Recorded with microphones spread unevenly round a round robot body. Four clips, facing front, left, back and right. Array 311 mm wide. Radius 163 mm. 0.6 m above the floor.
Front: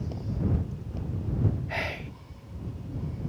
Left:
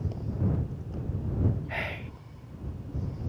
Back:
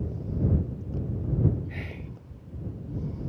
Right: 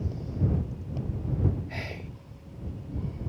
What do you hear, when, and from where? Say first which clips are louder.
1.7 s whispering: left 3 dB, front 6 dB; 25° left